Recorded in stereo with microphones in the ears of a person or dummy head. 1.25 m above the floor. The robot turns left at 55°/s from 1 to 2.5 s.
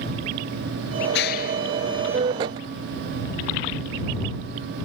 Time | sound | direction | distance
1.1 | a clap | 65° left (ahead or behind) | ?